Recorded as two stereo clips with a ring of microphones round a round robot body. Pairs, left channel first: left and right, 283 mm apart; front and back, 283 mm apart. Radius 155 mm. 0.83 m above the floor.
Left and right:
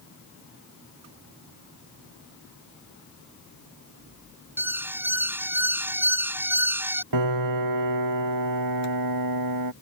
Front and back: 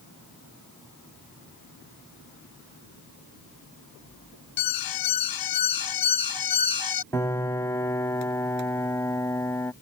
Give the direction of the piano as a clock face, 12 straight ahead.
3 o'clock.